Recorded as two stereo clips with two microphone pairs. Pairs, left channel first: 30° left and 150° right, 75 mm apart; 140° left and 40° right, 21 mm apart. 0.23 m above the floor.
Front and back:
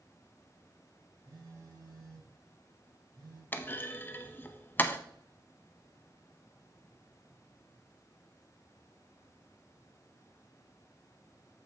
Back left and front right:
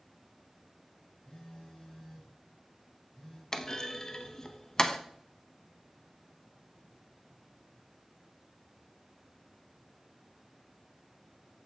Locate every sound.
1.2 s a phone buzzing: 175° left, 4 m
3.5 s a clunk: 85° left, 0.5 m